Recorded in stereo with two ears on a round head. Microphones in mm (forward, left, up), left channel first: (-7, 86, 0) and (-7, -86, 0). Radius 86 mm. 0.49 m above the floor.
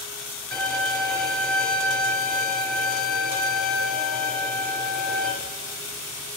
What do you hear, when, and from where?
0.5 s a violin: 5° left (ahead or behind), 3 m